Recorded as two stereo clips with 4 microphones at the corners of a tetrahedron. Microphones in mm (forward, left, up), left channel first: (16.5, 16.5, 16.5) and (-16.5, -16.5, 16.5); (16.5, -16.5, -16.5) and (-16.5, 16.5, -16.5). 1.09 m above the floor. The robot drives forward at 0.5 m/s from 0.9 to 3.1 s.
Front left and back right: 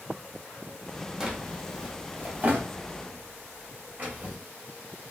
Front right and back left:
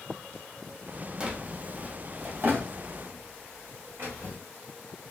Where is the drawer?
170° left, 0.6 m; by 4.4 s straight behind, 1.3 m.